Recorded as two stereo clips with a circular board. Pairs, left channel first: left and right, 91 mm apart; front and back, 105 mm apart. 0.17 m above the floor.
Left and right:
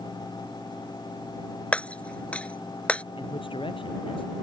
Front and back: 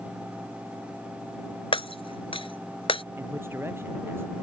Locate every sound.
1.7 s breaking glass: 15° left
3.2 s a man speaking: 110° left